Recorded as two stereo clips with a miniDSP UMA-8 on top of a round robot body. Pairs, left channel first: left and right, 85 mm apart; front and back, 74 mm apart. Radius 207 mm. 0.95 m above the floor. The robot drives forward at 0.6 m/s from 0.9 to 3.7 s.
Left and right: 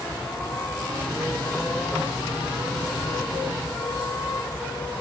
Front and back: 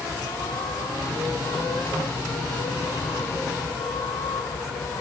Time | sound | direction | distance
0.0 | a vehicle | 20° left | ?